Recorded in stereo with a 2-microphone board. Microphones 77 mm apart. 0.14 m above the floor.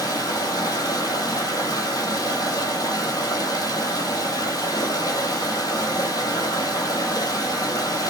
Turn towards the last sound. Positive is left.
turn(degrees=55)  # may be behind; listen again after turning